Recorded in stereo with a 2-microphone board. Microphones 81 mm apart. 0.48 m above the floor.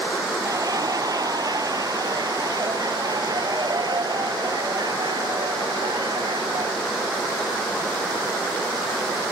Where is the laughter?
45° right (ahead or behind); by 6.8 s 60° right (ahead or behind).